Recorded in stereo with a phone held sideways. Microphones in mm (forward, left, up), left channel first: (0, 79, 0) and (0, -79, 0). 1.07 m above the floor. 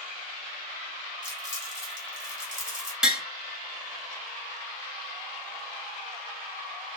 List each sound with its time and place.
1.2 s crumpling: 55° right (ahead or behind), 2.5 m
3.0 s tapping: 5° right (ahead or behind), 1.3 m